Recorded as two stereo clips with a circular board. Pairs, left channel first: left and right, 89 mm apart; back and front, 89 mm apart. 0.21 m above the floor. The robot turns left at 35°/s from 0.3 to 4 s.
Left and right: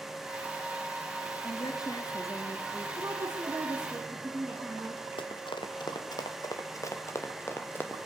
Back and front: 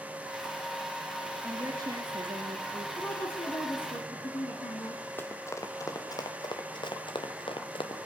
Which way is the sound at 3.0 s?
130° right.